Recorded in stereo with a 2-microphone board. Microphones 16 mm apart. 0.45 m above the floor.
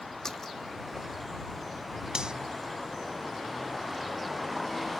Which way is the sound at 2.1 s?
65° right (ahead or behind).